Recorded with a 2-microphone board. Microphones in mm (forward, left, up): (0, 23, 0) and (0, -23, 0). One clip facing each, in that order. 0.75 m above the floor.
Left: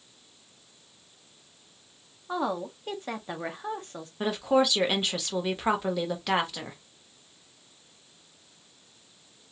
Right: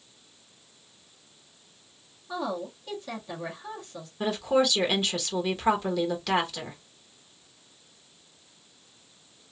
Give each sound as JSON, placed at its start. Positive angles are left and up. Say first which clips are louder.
{"t": 2.3, "sound": "a woman speaking", "louder": "left 2 dB", "side_deg": 40, "distance_m": 0.9}
{"t": 4.2, "sound": "a woman speaking", "louder": "even", "side_deg": 10, "distance_m": 1.0}